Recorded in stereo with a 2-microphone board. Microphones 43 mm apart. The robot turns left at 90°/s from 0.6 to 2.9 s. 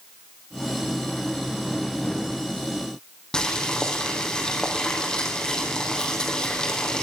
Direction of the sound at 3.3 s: 20° left (ahead or behind).